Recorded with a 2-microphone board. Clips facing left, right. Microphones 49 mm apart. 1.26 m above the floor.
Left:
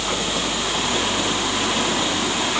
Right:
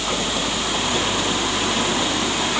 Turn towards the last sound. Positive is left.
No sound to turn to.